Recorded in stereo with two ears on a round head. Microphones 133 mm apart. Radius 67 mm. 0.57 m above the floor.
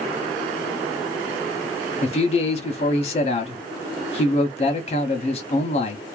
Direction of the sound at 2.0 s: 45° left (ahead or behind).